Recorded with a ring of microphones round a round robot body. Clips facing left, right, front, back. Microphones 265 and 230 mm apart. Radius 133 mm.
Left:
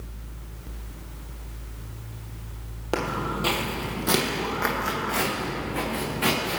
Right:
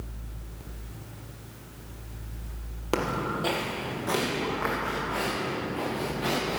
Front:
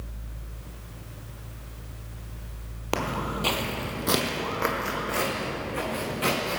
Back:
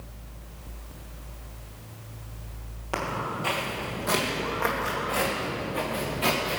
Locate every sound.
2.9 s footsteps: 10° right, 1.4 m; by 6.6 s 70° left, 5 m